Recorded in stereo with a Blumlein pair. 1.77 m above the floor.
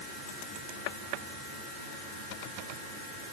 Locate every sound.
Only background noise.